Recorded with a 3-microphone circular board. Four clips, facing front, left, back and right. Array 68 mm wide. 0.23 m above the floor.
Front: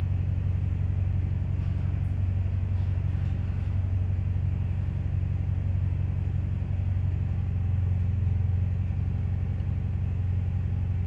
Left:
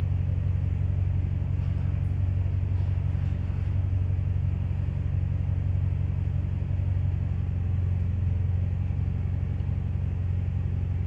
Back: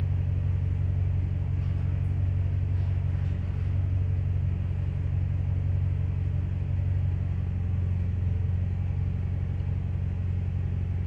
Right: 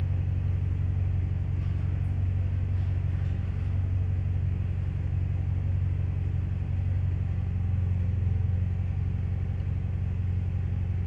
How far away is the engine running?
About 1.8 m.